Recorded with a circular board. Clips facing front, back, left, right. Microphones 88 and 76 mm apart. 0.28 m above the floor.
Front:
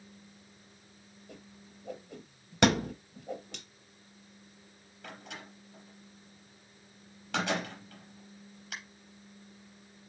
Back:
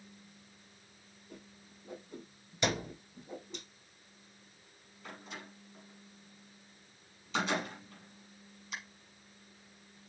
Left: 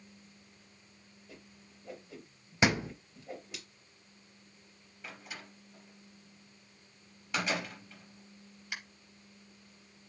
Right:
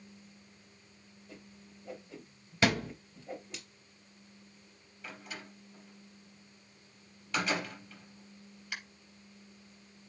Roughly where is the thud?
Ahead.